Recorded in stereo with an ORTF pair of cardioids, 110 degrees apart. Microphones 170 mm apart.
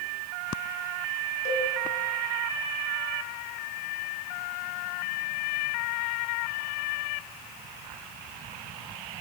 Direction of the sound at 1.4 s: 45° left.